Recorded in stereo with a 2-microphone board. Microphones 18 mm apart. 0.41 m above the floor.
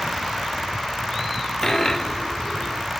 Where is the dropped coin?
30° left (ahead or behind), 1.3 m.